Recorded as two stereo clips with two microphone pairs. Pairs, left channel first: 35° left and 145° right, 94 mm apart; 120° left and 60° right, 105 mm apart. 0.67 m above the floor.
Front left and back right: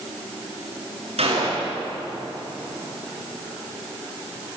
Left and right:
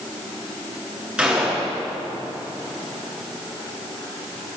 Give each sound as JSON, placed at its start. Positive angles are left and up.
{"t": 1.2, "sound": "a gunshot", "azimuth_deg": -140, "distance_m": 10.0}